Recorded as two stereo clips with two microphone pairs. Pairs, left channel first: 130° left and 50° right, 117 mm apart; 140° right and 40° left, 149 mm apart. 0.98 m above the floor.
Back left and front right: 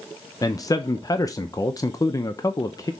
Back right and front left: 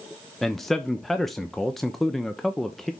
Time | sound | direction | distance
0.4 | a man speaking | 130° left | 0.7 m